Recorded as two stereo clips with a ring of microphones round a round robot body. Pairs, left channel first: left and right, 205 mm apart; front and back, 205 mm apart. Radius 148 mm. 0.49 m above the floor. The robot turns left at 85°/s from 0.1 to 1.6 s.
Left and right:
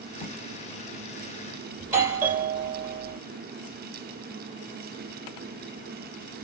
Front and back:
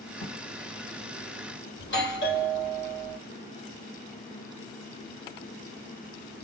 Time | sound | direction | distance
0.2 | writing | 30° left | 1.6 m
1.8 | a doorbell | 15° right | 3 m